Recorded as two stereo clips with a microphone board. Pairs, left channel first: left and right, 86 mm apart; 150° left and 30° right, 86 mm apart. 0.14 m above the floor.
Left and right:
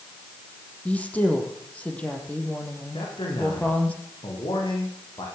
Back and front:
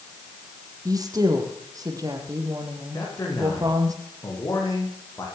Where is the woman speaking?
15° left, 5 m.